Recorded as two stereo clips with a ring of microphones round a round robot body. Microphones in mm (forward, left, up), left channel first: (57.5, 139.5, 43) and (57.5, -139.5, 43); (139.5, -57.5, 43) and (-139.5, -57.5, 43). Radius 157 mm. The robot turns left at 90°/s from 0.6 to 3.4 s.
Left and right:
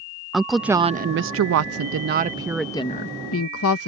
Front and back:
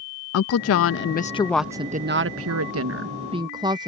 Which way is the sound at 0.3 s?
Straight ahead.